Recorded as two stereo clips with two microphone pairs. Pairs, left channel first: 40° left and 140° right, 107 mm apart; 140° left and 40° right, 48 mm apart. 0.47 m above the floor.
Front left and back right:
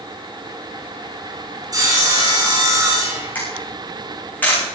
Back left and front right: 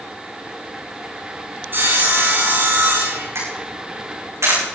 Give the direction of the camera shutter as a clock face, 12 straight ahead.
1 o'clock.